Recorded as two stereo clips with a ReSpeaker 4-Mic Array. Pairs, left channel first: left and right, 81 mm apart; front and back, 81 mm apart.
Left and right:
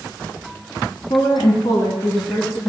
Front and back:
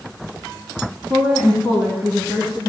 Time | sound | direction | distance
1.1 | a woman speaking | 80° left | 4 m